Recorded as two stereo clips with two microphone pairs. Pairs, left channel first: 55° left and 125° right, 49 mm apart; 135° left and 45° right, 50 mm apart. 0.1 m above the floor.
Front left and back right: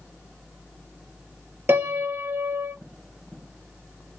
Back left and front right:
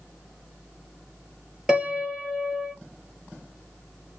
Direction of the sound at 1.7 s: 120° right.